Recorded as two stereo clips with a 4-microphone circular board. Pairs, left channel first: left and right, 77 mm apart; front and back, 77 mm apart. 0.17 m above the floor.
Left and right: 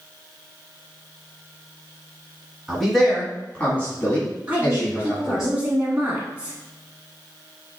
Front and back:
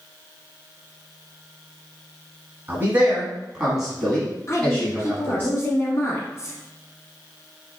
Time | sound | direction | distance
2.7 | a man speaking | 170° right | 1.4 m
4.5 | a woman speaking | 30° right | 1.3 m